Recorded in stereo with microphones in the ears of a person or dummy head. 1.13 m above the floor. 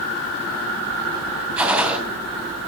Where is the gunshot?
10° right (ahead or behind), 2.5 m.